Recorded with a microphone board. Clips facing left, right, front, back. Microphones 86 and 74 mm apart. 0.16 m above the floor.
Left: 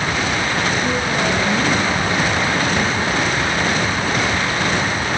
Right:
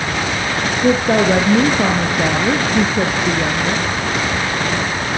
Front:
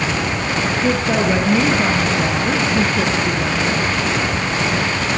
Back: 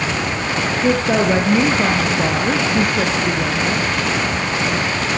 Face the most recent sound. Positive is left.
turn(degrees=-105)